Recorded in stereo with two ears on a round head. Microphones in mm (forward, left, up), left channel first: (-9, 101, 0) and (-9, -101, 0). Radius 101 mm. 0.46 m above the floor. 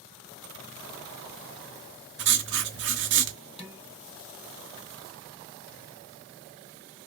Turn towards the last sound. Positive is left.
turn(degrees=25)  # may be behind; listen again after turning